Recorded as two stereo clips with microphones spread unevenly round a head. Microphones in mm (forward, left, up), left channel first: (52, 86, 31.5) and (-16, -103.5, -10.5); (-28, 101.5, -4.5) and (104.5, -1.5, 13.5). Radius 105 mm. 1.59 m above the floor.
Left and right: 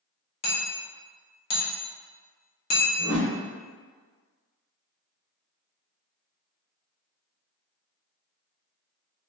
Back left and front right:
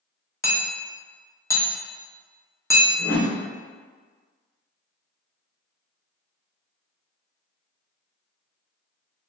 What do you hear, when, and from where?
0.4 s hammering: 70° left, 0.9 m
3.0 s a whoosh: 115° left, 1.8 m